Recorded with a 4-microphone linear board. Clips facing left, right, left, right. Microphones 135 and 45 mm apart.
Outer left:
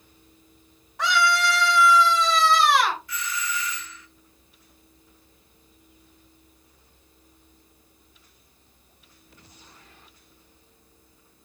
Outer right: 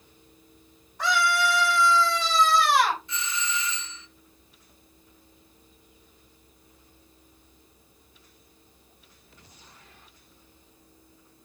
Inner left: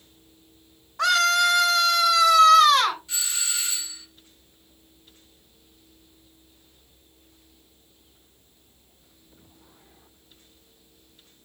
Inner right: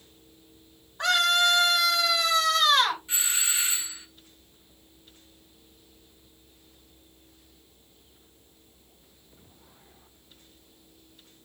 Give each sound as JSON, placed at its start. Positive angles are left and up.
{"t": 1.0, "sound": "a scream", "side_deg": 90, "distance_m": 4.5}
{"t": 3.1, "sound": "a doorbell", "side_deg": -25, "distance_m": 0.9}